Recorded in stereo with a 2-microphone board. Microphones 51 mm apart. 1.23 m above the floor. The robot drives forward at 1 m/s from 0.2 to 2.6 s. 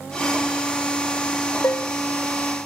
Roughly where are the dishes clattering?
Left.